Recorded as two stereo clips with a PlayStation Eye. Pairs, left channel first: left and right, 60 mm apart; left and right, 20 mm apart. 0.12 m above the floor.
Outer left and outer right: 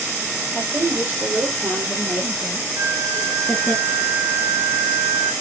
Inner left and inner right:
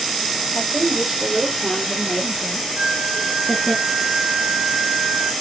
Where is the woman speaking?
35° right (ahead or behind), 4.5 m; by 3.8 s 10° left (ahead or behind), 1.4 m.